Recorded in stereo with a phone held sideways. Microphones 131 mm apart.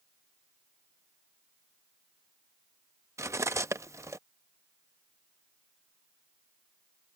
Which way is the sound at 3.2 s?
20° right (ahead or behind).